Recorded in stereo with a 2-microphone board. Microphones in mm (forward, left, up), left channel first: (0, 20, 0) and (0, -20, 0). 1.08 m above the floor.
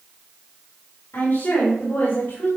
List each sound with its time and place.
1.1 s a woman speaking: 75° left (ahead or behind), 4.5 m; by 2.5 s 85° left, 5 m